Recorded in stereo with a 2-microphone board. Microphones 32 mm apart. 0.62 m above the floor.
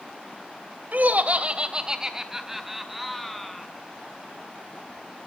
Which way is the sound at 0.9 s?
55° right (ahead or behind).